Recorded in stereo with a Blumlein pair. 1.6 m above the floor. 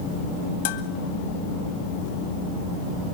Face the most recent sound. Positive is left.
turn(degrees=55)